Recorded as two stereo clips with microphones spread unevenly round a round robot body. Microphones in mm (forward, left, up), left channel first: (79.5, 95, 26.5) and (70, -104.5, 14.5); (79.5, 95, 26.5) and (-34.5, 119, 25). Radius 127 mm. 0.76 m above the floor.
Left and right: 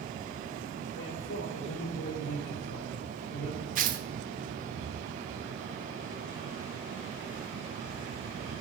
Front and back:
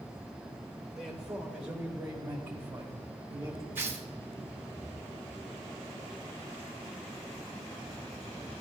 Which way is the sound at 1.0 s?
80° left.